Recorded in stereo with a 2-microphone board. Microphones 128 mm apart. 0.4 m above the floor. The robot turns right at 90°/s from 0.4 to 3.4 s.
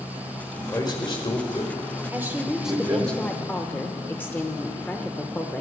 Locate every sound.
0.6 s a man speaking: 20° left (ahead or behind), 1.8 m; by 3.1 s 40° right (ahead or behind), 1.8 m
2.1 s a woman speaking: 20° right (ahead or behind), 1.0 m; by 5.6 s 15° left (ahead or behind), 1.0 m